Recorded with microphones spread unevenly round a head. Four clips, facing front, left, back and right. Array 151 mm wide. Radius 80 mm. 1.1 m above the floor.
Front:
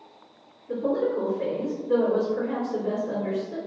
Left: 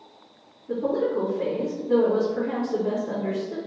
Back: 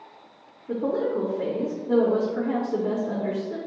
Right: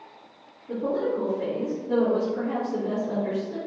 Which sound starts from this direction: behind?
A woman speaking, at 0.7 s.